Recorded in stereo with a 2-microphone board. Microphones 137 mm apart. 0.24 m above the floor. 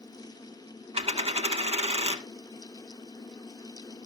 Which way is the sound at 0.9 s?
50° right (ahead or behind).